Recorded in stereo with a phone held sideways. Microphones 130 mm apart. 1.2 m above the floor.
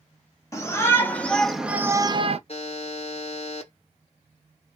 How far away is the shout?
About 1.1 m.